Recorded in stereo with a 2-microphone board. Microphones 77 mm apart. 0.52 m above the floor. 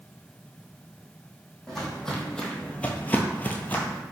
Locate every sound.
1.7 s footsteps: 5° left (ahead or behind), 1.1 m; by 4.0 s 20° left (ahead or behind), 0.7 m